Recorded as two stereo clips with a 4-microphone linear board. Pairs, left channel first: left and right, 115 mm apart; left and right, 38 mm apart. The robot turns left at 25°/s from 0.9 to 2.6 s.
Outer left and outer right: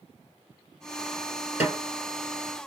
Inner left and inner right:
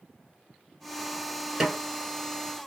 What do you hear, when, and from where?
1.6 s a snare drum: 10° right (ahead or behind), 1.1 m; by 1.8 s 5° right (ahead or behind), 1.1 m